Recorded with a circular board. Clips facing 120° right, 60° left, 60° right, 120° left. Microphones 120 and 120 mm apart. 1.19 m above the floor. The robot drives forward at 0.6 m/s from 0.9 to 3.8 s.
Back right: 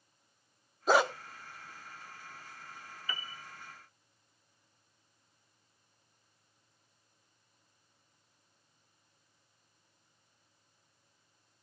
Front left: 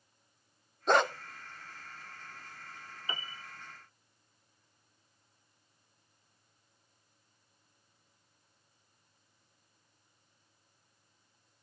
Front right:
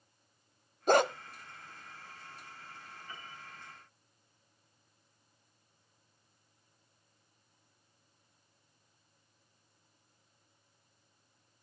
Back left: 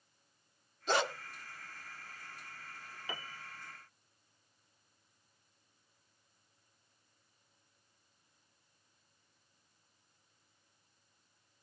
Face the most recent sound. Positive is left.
turn(degrees=145)